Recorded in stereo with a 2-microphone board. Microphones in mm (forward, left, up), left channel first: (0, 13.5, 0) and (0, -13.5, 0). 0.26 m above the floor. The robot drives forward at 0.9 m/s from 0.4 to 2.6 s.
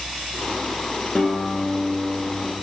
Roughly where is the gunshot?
I don't hear a gunshot.